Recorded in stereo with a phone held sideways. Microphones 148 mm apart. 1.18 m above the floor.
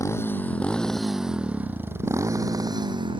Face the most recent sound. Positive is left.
turn(degrees=-35)  # may be behind; listen again after turning